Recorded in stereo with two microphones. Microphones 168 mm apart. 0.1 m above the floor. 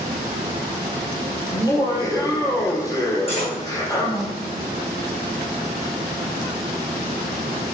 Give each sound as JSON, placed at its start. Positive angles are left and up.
{"t": 1.5, "sound": "laughter", "side_deg": 20, "distance_m": 3.0}
{"t": 3.3, "sound": "cutlery clinking", "side_deg": 35, "distance_m": 3.5}